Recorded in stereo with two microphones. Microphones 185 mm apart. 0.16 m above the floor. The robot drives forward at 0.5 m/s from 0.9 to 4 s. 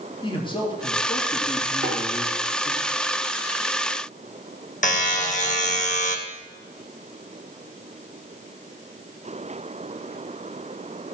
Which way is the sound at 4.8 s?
45° left (ahead or behind).